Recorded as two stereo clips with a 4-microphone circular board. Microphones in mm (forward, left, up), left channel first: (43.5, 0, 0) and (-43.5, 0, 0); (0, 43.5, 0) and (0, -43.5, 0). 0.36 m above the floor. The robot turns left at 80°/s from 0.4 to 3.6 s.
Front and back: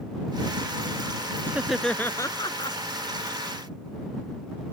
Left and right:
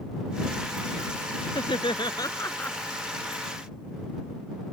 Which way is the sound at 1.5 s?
110° left.